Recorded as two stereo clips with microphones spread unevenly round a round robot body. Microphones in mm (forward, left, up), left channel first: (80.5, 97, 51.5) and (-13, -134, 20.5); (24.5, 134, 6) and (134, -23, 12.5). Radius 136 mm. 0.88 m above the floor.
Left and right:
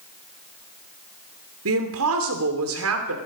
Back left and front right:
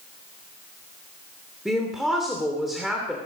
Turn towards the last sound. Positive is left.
turn(degrees=-145)